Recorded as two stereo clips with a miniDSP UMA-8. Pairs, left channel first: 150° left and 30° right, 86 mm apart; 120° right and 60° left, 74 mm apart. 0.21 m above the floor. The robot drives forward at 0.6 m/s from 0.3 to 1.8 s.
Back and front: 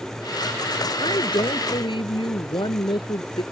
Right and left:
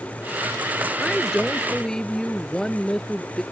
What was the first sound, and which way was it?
A woman speaking, 155° left.